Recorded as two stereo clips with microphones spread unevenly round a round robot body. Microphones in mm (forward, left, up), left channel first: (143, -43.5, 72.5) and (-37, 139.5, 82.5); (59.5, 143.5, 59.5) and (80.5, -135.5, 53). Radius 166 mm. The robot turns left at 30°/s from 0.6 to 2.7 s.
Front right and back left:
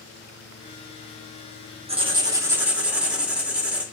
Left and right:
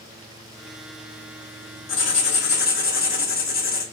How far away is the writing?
About 1.1 m.